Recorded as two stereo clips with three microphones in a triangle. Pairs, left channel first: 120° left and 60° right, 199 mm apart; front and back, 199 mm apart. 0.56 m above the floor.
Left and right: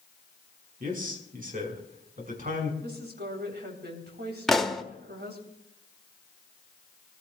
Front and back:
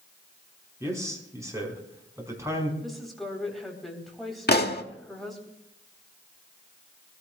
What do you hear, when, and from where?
0.8 s a man speaking: 105° right, 5 m
2.8 s a woman speaking: 90° right, 3.5 m
4.5 s a pop: 30° left, 1.0 m